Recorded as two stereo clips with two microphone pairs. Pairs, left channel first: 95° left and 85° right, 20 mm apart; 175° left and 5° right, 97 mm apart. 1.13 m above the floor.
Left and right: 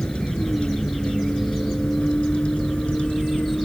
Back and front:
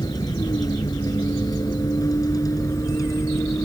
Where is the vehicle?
130° left; by 3.6 s 115° left.